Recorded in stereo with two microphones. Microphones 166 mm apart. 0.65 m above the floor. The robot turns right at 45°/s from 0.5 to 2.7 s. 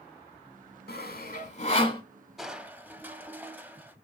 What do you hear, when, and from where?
0.9 s sawing: 75° left (ahead or behind), 1.0 m; by 2.0 s 25° left (ahead or behind), 1.0 m
2.4 s crushing: centre (ahead or behind), 0.5 m; by 4.0 s 10° right (ahead or behind), 0.5 m